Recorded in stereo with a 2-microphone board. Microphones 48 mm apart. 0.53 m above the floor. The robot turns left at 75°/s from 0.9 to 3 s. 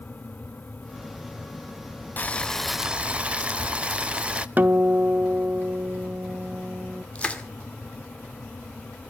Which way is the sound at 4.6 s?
40° right (ahead or behind).